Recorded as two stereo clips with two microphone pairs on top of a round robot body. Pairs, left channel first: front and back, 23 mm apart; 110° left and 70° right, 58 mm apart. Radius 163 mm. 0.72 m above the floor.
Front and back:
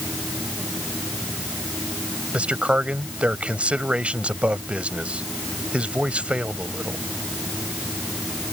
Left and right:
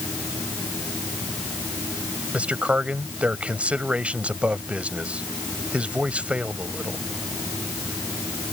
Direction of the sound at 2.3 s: 140° right.